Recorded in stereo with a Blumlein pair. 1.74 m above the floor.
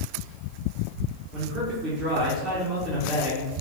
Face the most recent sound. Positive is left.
turn(degrees=-25)